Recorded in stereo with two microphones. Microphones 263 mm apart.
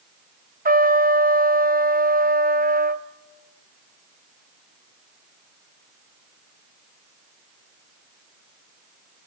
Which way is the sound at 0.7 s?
35° right (ahead or behind).